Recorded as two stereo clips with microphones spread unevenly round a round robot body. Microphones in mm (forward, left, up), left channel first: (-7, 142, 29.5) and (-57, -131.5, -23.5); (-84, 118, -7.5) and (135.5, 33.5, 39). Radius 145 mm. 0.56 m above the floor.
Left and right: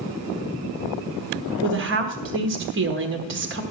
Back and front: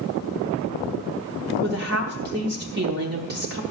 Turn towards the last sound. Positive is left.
turn(degrees=-75)